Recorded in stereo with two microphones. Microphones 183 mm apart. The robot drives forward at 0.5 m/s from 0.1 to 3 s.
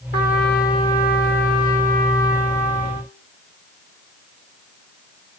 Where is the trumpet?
65° left (ahead or behind), 3.5 m; by 3.1 s 45° left (ahead or behind), 4 m.